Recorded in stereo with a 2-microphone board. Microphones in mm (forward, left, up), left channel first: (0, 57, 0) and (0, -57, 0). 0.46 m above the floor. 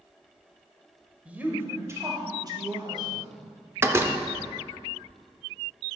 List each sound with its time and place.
1.2 s a woman speaking: 10° right (ahead or behind), 1.5 m; by 3.3 s 45° right (ahead or behind), 2.5 m
3.8 s a door slam: 20° right (ahead or behind), 0.7 m